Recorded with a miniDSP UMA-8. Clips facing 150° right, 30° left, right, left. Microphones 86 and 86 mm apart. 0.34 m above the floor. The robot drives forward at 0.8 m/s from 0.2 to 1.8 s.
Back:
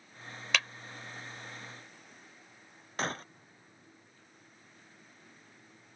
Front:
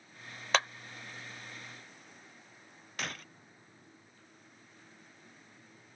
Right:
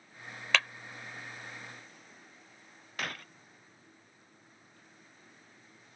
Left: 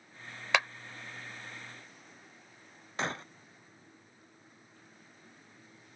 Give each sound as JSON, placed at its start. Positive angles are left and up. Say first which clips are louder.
{"t": 0.5, "sound": "a clap", "louder": "front 4 dB, left 1 dB", "azimuth_deg": 30}
{"t": 3.0, "sound": "breaking glass", "louder": "back 6 dB, left 4 dB", "azimuth_deg": 155}